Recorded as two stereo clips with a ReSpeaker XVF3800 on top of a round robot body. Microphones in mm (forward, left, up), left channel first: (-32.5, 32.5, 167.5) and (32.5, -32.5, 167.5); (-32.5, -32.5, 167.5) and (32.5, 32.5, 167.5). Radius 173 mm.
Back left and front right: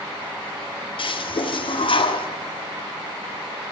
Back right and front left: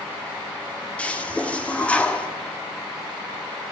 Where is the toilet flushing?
150° left, 1.1 m.